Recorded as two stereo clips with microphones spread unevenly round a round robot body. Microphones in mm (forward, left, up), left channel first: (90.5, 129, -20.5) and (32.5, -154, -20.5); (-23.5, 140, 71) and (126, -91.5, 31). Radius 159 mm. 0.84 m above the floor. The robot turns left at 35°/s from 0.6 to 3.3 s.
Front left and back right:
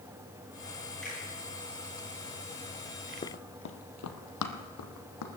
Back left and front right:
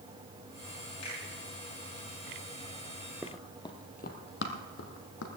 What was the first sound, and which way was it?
A finger snap, 170° left.